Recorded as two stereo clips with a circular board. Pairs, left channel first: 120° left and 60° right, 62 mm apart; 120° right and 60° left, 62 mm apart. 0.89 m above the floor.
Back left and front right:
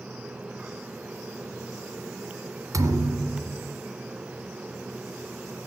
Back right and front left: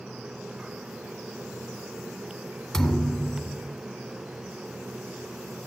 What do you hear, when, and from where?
2.7 s a thud: 40° right, 1.6 m